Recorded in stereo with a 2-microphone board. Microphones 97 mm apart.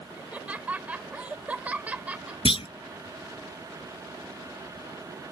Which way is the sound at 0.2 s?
15° right (ahead or behind).